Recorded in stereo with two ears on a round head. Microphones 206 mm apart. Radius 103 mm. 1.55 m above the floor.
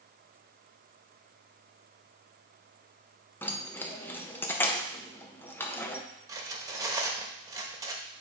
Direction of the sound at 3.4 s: 10° left (ahead or behind).